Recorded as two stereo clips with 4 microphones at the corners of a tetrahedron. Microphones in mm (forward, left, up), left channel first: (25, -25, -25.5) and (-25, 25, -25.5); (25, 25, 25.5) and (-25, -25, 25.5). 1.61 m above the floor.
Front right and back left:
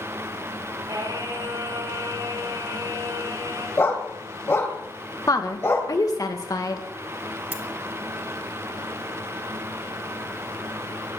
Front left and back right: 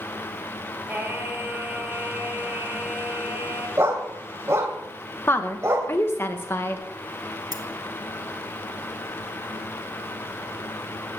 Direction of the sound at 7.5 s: 155° right.